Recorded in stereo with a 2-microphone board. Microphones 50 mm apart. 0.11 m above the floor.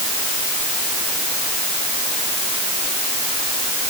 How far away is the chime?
I don't hear a chime.